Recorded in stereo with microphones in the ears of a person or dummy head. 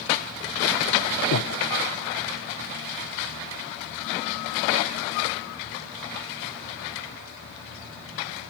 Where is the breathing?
85° left, 0.9 m.